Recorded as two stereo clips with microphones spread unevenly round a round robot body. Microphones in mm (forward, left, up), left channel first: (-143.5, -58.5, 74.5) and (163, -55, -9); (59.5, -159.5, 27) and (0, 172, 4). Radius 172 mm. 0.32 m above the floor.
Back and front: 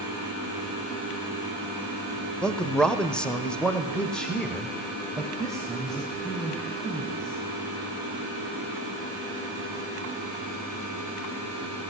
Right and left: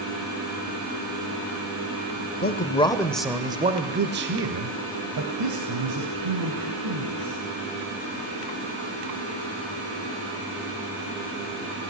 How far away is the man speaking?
About 1.3 m.